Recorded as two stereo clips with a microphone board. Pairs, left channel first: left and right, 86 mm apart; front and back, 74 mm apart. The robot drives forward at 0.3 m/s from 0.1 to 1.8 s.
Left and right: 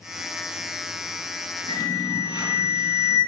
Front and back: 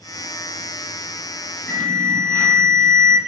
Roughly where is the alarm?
Left.